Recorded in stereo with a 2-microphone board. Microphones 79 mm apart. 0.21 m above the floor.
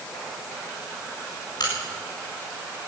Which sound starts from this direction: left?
A crack, at 1.6 s.